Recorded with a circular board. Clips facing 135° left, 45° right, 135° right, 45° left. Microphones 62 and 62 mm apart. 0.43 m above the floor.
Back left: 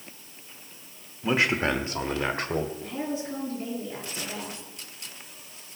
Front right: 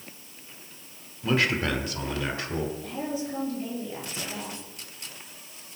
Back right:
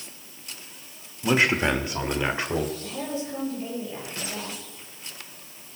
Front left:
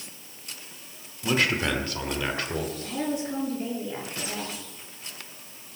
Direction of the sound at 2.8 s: 75° left.